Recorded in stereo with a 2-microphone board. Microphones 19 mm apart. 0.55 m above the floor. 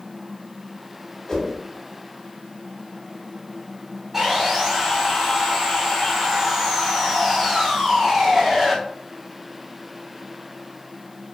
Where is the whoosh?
25° left (ahead or behind), 1.2 m.